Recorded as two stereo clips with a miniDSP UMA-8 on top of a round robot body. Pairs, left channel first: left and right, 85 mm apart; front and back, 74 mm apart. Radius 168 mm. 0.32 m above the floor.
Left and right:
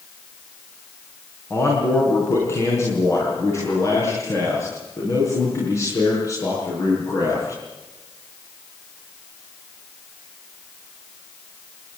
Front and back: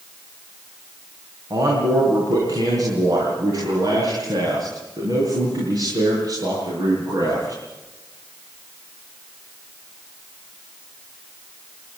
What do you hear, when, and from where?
1.5 s a man speaking: 150° left, 5 m; by 7.6 s 145° left, 9 m